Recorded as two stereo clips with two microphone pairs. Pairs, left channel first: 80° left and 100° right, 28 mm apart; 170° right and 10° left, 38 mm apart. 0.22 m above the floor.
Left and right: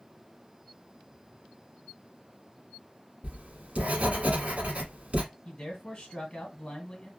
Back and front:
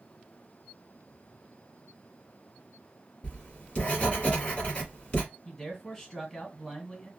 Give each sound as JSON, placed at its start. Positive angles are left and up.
{"t": 3.2, "sound": "writing", "azimuth_deg": -120, "distance_m": 1.5}
{"t": 5.5, "sound": "a man speaking", "azimuth_deg": 115, "distance_m": 1.5}